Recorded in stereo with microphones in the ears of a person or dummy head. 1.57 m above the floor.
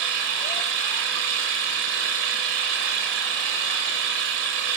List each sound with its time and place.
0.0 s an engine running: 55° right (ahead or behind), 1.2 m